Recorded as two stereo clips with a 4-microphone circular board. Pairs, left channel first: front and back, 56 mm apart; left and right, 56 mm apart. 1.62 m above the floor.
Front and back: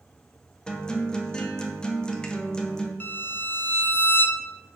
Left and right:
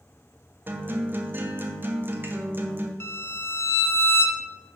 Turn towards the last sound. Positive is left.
turn(degrees=55)